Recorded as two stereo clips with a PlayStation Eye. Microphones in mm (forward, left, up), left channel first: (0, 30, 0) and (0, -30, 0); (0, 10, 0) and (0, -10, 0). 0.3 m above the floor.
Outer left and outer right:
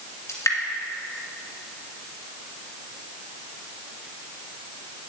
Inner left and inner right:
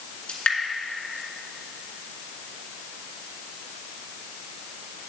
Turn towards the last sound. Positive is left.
turn(degrees=60)  # may be behind; listen again after turning